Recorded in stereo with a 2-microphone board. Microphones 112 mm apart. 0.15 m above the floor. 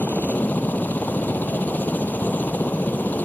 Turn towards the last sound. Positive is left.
turn(degrees=15)  # may be behind; listen again after turning